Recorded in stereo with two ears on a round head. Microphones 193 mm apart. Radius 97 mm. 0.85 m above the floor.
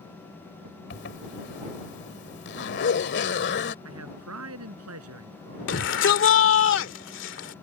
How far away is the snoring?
No snoring in this recording.